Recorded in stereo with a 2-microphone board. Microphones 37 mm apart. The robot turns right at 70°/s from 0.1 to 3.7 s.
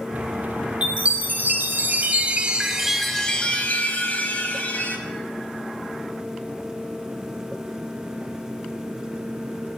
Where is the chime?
150° right, 1.0 m; by 5.0 s 50° left, 1.0 m.